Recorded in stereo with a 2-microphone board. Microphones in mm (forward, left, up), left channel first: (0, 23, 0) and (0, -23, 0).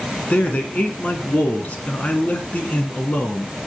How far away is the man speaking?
About 2 m.